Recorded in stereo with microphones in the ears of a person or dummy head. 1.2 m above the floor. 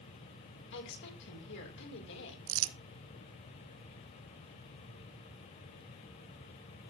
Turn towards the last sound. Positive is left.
turn(degrees=-70)  # may be behind; listen again after turning